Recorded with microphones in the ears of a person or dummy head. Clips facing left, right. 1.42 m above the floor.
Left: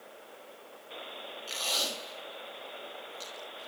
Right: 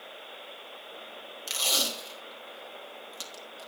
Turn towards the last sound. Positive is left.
turn(degrees=-60)  # may be behind; listen again after turning